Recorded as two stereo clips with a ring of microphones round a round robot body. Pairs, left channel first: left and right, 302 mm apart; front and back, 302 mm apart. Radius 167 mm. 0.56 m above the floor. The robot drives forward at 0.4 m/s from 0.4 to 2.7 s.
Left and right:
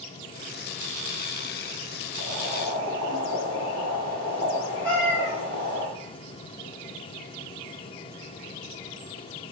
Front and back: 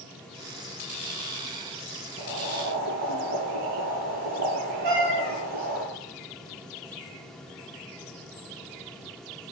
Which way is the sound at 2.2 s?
140° right.